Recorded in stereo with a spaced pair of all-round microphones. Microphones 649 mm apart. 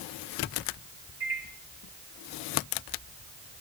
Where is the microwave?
55° right (ahead or behind), 4.5 m.